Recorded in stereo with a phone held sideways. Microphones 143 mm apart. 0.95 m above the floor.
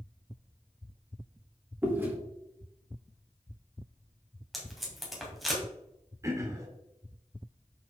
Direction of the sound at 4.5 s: Centre (ahead or behind).